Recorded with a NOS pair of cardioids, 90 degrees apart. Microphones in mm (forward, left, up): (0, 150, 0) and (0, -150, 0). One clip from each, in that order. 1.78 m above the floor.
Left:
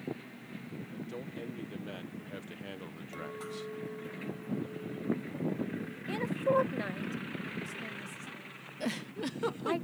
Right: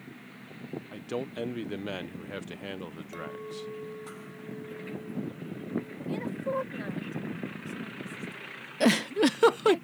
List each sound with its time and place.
0.9 s a man speaking: 70° right; by 3.7 s 10° right
3.1 s a clink: 15° right
6.1 s a woman speaking: 25° left
8.8 s a giggle: 60° right